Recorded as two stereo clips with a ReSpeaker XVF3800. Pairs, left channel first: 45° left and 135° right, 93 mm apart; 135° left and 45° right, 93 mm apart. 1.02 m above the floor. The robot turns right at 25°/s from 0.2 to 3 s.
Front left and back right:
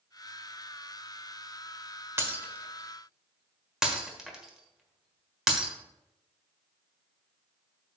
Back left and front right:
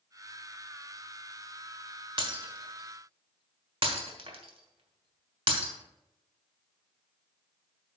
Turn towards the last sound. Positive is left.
turn(degrees=-50)